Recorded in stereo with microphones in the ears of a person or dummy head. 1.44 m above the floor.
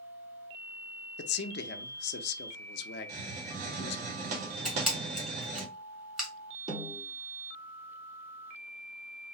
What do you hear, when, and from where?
1.2 s a man speaking: 55° left (ahead or behind), 0.6 m
3.1 s a hiss: 45° right (ahead or behind), 1.0 m
4.7 s a camera shutter: centre (ahead or behind), 1.5 m
6.7 s a snare drum: 25° right (ahead or behind), 1.5 m